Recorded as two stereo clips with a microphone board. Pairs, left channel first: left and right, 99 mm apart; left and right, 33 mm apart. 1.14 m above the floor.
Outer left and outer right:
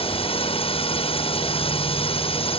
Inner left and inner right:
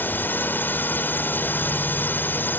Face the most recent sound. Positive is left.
turn(degrees=75)  # may be behind; listen again after turning